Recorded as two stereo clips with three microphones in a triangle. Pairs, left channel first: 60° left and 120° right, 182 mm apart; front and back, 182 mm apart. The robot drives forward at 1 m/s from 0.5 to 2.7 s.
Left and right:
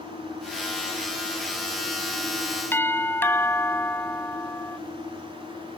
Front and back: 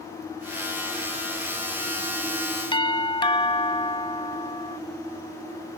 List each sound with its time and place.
2.7 s a doorbell: 5° right